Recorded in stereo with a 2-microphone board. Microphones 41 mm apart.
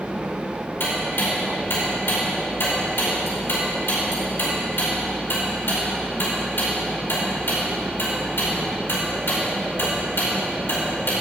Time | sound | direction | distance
0.8 | ticking | 65° left (ahead or behind) | 4.5 m